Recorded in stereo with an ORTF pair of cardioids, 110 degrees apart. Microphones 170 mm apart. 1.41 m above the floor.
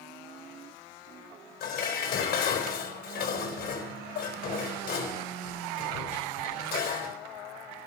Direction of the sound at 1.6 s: 70° left.